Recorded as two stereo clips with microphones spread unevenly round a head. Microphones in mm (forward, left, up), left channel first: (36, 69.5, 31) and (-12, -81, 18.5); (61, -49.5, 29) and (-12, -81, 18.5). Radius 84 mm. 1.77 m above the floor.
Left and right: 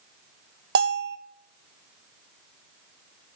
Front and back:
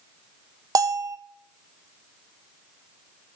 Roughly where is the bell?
Behind right.